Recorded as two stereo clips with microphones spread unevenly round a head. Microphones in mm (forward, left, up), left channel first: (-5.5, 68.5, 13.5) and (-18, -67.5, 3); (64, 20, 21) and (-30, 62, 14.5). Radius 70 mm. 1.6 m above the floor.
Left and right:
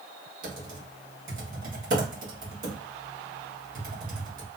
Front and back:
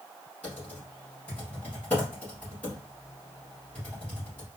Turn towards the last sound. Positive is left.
turn(degrees=-95)